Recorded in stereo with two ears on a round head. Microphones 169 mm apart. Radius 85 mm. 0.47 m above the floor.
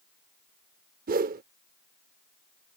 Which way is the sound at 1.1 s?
50° right (ahead or behind).